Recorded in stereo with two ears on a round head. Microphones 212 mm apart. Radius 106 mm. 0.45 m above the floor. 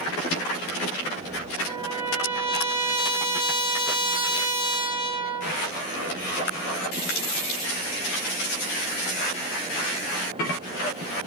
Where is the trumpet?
25° right (ahead or behind), 1.2 m.